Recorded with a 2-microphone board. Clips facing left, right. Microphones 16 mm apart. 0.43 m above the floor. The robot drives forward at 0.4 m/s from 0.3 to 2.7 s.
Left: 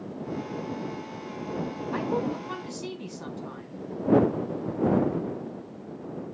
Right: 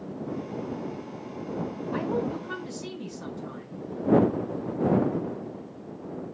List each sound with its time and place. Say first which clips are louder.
1.9 s a woman speaking: even; centre (ahead or behind), 4 m